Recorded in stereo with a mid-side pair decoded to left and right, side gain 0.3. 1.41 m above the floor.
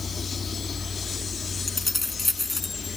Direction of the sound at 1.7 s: 20° left.